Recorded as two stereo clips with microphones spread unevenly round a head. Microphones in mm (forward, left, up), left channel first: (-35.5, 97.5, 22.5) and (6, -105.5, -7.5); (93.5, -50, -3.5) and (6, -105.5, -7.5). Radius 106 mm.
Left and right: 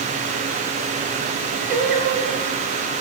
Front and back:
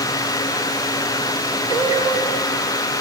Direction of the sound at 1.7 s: 110° right.